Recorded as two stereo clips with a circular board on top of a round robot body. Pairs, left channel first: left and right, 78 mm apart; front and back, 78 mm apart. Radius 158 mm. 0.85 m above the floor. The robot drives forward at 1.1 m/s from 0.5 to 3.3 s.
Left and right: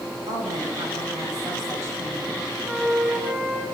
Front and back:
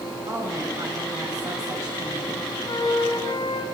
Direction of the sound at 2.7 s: 15° right.